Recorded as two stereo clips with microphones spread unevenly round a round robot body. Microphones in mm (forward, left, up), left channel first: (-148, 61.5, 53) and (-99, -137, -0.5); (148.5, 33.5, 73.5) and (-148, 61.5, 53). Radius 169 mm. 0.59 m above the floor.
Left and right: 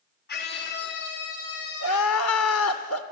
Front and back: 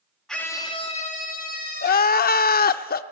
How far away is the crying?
About 0.6 m.